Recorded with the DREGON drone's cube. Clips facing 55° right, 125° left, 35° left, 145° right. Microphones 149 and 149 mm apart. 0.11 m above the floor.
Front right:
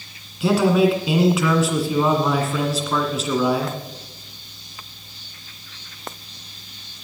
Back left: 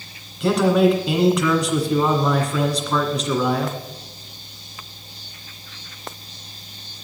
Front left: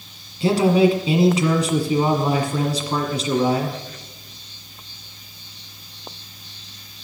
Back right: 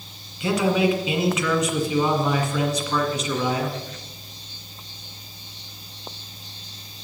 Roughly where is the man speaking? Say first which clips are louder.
Even, front left 5 dB; ahead left.